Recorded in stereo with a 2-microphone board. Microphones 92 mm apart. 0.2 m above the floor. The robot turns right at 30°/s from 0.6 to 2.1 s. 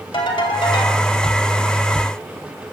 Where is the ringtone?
75° left (ahead or behind), 2 m; by 1.0 s 65° left (ahead or behind), 2 m.